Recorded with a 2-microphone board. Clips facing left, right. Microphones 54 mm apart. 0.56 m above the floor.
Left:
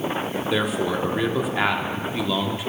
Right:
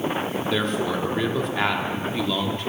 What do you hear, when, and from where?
0.5 s a man speaking: 5° left (ahead or behind), 1.1 m